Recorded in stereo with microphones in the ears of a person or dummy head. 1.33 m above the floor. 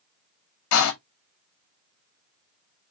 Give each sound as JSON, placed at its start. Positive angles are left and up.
{"t": 0.7, "sound": "a door slam", "side_deg": 70, "distance_m": 1.9}